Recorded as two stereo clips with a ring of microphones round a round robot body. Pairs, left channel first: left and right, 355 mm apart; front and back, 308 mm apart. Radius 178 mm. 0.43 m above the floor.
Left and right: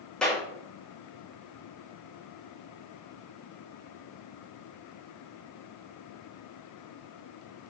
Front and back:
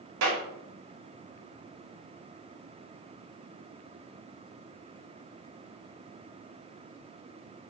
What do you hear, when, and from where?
0.2 s a clap: straight behind, 4.5 m